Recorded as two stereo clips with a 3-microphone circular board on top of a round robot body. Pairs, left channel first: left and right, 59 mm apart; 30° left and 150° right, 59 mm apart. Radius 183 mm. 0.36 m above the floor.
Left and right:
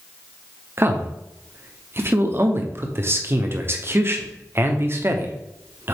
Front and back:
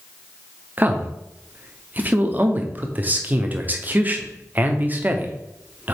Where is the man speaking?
105° right, 1.0 m.